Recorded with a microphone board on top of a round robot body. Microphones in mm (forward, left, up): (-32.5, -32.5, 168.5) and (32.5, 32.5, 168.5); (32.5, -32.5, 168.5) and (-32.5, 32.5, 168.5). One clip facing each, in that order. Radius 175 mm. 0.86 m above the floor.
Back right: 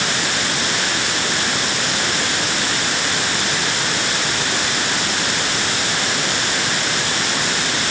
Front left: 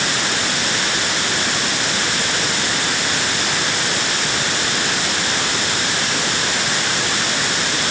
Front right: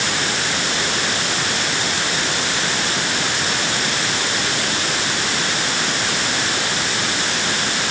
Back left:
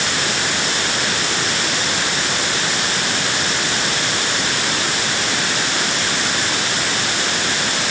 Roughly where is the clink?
I don't hear a clink.